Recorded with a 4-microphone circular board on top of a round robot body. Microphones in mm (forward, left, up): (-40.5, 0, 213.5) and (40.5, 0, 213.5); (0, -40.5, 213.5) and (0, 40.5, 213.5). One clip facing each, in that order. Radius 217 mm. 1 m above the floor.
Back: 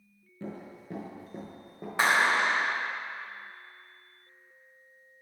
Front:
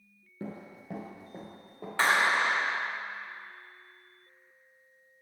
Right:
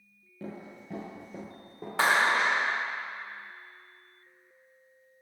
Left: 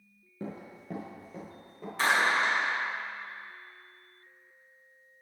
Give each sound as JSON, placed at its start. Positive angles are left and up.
{"t": 0.4, "sound": "running footsteps", "azimuth_deg": 50, "distance_m": 1.2}
{"t": 2.0, "sound": "a clap", "azimuth_deg": -105, "distance_m": 1.6}